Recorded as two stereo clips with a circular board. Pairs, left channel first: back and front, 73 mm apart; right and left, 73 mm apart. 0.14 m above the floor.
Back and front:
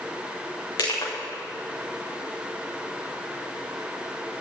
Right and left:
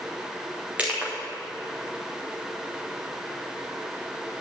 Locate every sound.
0.8 s crushing: 160° left, 3.5 m